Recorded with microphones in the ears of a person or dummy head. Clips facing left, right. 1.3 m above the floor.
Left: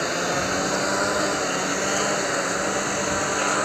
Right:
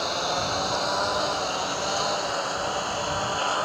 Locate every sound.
0.0 s a lawn mower: 25° left (ahead or behind); by 3.7 s 35° left (ahead or behind)